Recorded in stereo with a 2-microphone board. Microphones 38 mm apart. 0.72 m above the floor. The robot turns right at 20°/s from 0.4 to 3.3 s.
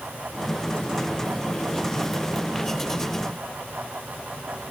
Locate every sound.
Only background noise.